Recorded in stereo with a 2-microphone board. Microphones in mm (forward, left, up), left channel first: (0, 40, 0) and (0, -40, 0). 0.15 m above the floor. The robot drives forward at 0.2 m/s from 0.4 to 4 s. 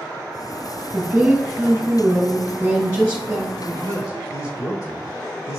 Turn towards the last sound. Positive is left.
turn(degrees=45)  # may be behind; listen again after turning